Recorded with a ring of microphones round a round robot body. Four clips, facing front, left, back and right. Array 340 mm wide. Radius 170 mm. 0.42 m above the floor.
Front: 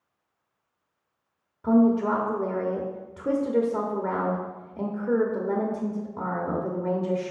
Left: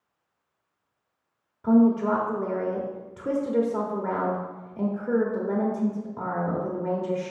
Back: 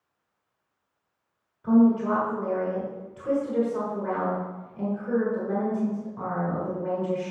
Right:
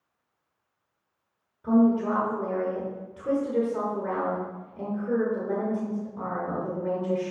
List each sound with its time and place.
1.6 s a woman speaking: 35° left, 1.2 m